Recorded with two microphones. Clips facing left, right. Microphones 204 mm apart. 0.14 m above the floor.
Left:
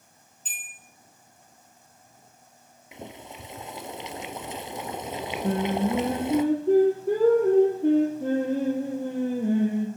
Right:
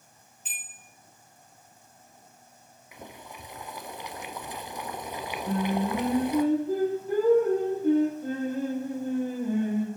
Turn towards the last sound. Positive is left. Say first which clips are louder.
# left 2 dB
turn(degrees=70)  # may be behind; listen again after turning